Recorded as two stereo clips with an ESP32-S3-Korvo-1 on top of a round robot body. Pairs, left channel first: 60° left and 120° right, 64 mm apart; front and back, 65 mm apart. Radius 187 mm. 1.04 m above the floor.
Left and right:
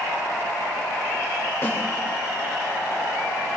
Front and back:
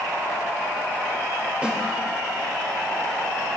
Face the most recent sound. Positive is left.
turn(degrees=110)